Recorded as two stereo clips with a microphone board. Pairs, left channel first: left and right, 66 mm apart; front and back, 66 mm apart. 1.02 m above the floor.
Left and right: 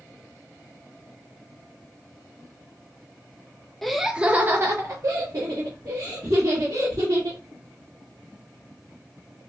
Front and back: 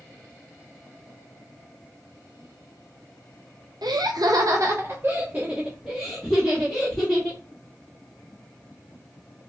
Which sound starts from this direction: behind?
Laughter, at 3.8 s.